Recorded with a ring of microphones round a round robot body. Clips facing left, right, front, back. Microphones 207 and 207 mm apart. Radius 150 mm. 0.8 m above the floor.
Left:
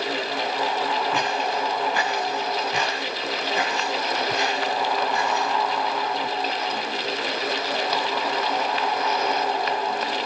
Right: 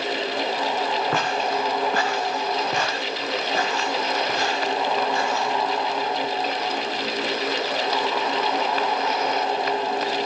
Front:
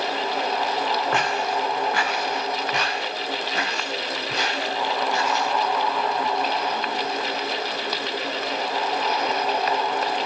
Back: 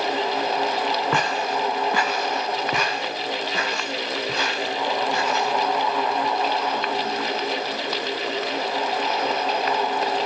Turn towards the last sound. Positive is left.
turn(degrees=-160)